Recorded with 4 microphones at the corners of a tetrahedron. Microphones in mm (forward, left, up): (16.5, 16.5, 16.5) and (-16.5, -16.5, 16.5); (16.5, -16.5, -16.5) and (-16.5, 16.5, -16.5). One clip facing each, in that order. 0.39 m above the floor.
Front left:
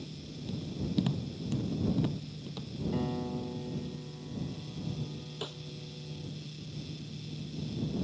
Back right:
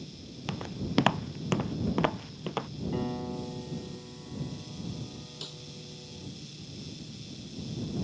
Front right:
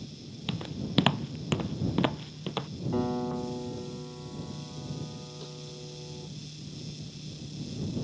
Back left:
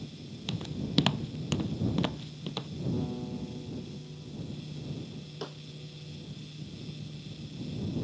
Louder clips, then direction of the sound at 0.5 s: Back right 1 dB, front right 1 dB; 120° right.